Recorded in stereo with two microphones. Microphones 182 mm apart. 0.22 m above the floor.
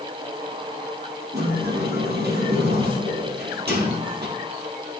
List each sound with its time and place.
1.3 s a sliding door: 70° right (ahead or behind), 3 m